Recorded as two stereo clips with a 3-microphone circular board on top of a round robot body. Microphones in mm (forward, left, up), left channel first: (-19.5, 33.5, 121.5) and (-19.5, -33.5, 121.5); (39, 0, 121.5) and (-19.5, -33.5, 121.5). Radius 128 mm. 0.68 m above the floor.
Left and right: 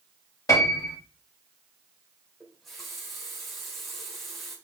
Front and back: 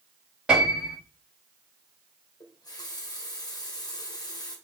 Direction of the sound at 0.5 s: 130° left.